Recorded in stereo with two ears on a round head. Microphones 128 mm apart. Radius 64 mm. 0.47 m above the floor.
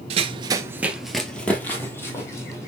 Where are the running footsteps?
45° right (ahead or behind), 0.5 m; by 2.7 s 20° left (ahead or behind), 1.5 m.